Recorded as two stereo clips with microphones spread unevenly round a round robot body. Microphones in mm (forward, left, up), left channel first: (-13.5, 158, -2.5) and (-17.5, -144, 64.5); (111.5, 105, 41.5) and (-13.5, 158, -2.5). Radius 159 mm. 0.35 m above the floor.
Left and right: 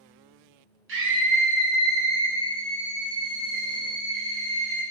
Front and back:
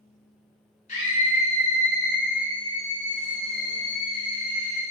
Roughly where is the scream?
Ahead right.